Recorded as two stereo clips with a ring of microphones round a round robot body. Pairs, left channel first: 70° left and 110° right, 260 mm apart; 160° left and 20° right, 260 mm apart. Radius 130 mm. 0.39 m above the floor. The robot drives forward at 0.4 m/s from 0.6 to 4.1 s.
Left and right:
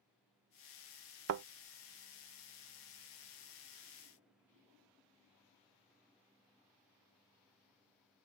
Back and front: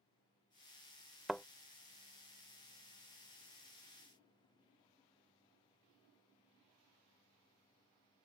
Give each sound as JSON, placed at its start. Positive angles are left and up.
{"t": 1.3, "sound": "a thud", "azimuth_deg": -110}